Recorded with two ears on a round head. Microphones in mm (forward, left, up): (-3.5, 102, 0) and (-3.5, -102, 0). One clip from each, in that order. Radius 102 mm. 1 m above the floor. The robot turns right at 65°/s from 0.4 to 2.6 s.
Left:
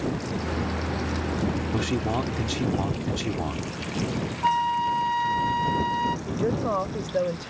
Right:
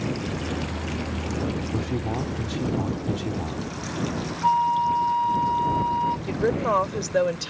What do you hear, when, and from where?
1.7 s a man speaking: 90° left; by 3.6 s 145° left
4.4 s a flute: 70° left (ahead or behind)
6.3 s a woman speaking: 60° right (ahead or behind)